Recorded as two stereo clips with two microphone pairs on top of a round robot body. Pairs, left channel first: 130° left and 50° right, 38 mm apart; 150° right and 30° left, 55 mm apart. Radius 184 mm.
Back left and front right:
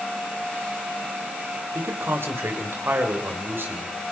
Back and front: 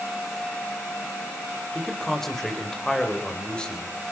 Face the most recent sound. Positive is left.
turn(degrees=-80)